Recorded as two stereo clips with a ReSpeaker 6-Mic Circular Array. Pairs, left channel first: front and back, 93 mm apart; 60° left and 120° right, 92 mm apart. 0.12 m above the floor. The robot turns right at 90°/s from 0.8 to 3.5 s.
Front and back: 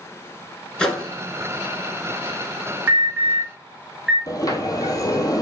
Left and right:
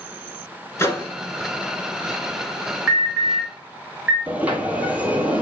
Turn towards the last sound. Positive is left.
turn(degrees=-45)